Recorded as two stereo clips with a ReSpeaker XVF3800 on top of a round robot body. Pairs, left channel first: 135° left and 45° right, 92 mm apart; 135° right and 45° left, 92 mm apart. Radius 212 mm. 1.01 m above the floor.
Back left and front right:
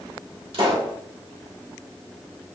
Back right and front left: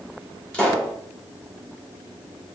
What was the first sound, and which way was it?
A pop, 60° right.